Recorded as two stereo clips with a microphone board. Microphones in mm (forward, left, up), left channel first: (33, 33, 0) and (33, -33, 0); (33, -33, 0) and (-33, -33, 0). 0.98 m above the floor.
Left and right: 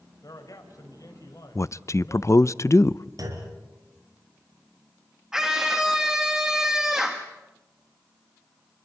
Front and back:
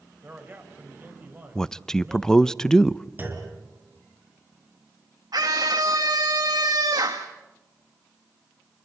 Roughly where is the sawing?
I don't hear sawing.